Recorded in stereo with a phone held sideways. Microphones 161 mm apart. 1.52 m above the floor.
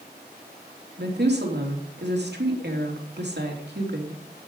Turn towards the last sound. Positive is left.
turn(degrees=-80)